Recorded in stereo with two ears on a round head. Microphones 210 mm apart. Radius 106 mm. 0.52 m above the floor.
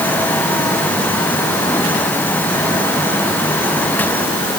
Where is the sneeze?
No sneeze in this recording.